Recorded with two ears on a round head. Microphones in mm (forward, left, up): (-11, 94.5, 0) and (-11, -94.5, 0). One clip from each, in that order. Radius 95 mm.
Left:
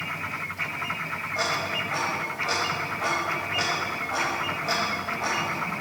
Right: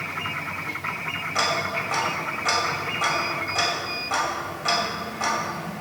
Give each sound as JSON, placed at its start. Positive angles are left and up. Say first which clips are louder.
{"t": 1.4, "sound": "ticking", "louder": "right 3 dB", "side_deg": -80, "distance_m": 5.0}